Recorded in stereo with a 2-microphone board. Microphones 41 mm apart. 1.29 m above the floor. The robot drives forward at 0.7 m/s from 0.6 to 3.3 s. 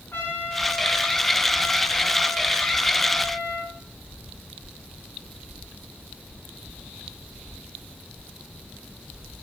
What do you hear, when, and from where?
0.1 s a trumpet: 60° left (ahead or behind), 5.5 m; by 3.8 s 80° left, 5 m